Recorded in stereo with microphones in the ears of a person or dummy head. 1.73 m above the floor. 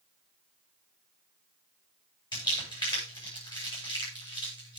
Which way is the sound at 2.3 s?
25° left (ahead or behind).